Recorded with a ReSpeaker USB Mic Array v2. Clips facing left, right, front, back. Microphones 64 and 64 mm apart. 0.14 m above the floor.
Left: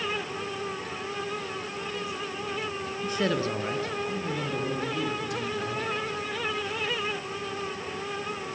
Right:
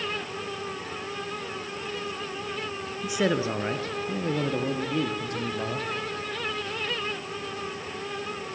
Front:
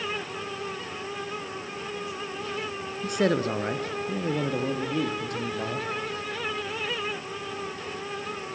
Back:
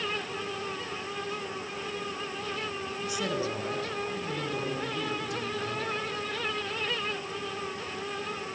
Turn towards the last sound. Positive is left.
turn(degrees=-45)